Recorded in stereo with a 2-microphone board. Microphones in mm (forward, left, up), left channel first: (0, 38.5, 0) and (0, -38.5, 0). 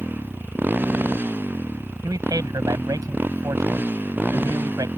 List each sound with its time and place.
0.0 s a motorcycle: 25° right (ahead or behind)
2.0 s a man speaking: 60° right (ahead or behind)